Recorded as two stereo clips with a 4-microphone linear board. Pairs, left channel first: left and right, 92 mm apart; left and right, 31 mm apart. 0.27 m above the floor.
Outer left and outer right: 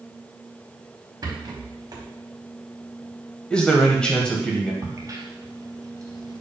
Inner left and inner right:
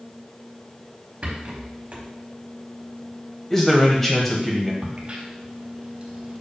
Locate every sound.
1.2 s a rattle: 45° right (ahead or behind), 1.0 m
3.5 s a man speaking: 10° left (ahead or behind), 1.1 m
4.8 s a crack: 35° right (ahead or behind), 0.9 m